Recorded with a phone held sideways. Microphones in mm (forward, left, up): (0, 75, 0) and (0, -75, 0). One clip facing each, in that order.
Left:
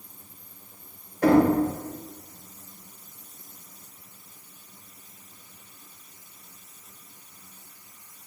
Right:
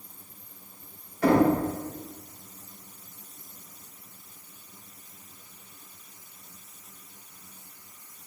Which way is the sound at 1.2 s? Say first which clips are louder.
Left 3 dB; 45° left (ahead or behind).